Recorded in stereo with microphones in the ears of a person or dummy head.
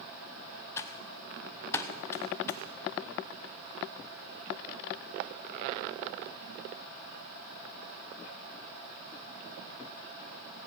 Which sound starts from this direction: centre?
Typing on a keyboard, at 0.8 s.